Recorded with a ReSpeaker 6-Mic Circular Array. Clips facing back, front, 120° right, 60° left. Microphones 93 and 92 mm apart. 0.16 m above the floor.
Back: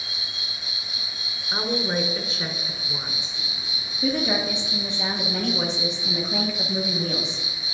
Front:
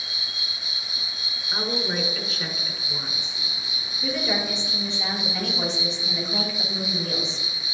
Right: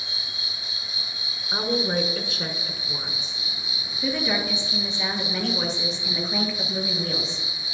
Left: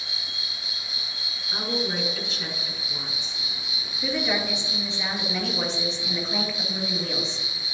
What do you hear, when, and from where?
0.0 s an insect: 85° left, 2.5 m
1.5 s a woman speaking: 130° right, 1.5 m
4.0 s a woman speaking: 155° left, 3 m